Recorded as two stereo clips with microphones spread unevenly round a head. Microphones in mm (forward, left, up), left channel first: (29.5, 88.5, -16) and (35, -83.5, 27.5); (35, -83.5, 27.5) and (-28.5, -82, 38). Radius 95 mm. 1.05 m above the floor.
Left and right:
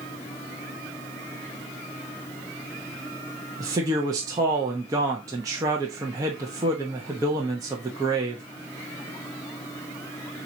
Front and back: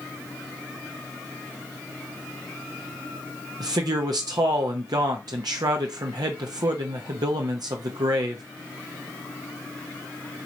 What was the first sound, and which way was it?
A man speaking, 165° right.